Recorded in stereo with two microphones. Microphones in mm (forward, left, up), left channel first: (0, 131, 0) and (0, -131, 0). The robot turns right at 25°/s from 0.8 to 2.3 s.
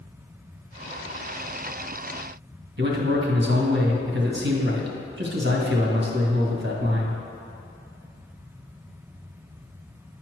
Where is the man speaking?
45° right (ahead or behind), 1.7 m.